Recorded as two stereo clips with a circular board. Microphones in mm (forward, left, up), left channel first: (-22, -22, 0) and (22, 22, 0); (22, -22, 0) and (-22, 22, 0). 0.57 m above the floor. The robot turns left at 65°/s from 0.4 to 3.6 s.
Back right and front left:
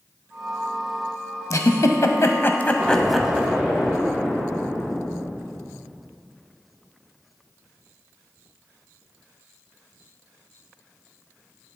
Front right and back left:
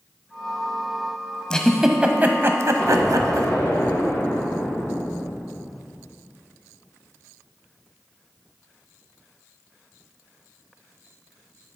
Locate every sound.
1.5 s a giggle: 120° right, 0.6 m; by 3.5 s 110° left, 0.6 m
2.8 s an explosion: 15° left, 1.6 m; by 5.8 s 35° right, 1.6 m